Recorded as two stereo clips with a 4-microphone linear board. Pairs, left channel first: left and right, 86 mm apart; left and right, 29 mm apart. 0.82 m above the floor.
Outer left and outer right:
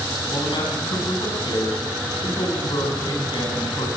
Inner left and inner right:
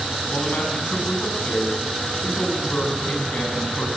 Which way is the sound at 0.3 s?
70° left (ahead or behind).